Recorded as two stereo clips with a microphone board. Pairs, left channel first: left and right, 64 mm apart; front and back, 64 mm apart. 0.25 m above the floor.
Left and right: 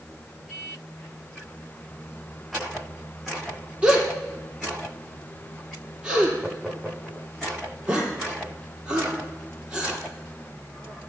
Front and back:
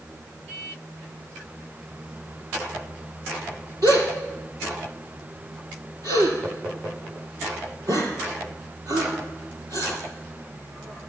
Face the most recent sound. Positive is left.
turn(degrees=-165)